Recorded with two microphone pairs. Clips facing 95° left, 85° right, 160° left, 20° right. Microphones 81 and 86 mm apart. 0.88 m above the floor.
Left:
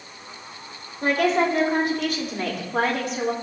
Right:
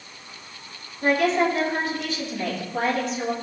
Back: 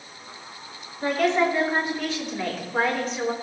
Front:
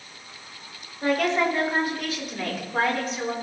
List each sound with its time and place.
1.0 s a woman speaking: 65° left, 4 m; by 3.3 s 70° left, 3 m